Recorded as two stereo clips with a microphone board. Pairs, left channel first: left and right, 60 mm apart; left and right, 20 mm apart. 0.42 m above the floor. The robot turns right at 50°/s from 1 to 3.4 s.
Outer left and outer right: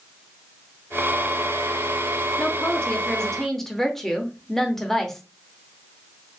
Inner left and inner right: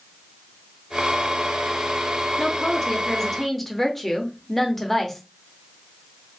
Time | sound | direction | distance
2.4 | a woman speaking | 25° left (ahead or behind) | 0.8 m